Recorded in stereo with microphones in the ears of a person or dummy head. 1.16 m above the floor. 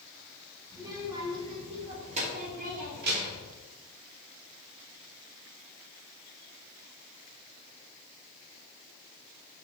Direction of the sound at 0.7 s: 20° right (ahead or behind).